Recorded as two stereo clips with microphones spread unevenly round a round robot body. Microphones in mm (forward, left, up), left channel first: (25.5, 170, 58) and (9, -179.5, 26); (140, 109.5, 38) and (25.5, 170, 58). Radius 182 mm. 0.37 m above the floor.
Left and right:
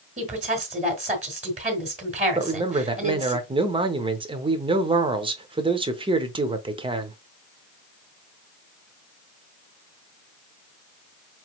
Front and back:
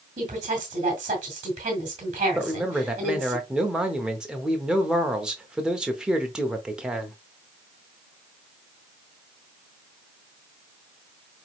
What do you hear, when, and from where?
0.2 s a woman speaking: 160° right, 1.6 m
2.4 s a man speaking: 110° right, 0.8 m